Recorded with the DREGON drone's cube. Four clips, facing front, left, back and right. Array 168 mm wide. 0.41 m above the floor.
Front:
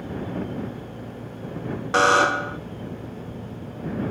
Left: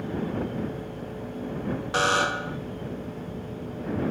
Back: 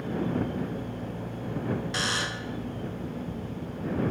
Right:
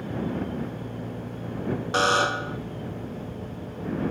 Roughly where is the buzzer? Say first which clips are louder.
Right 2 dB, front 14 dB; ahead.